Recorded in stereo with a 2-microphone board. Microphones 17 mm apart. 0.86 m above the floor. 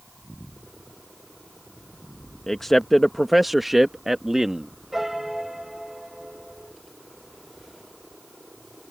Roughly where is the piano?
Right.